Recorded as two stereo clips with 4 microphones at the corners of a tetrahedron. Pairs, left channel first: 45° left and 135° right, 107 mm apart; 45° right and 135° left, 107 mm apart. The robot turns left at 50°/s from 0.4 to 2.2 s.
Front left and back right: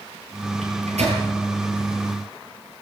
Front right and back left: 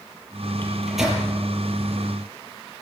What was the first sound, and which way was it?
A microwave, 120° right.